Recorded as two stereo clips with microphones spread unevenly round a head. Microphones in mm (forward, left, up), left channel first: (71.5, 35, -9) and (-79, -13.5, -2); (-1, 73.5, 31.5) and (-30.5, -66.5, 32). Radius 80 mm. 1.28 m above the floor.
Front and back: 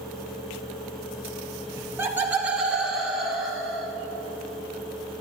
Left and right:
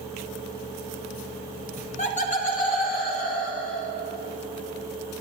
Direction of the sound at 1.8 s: 125° left.